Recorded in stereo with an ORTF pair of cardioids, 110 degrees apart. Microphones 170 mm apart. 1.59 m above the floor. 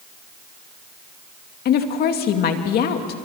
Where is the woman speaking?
65° left, 2.5 m.